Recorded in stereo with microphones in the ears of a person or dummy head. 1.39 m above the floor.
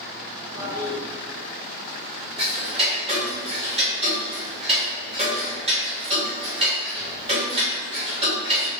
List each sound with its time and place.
0.6 s a toilet flushing: 15° right (ahead or behind), 1.1 m
2.4 s ticking: 35° right (ahead or behind), 1.1 m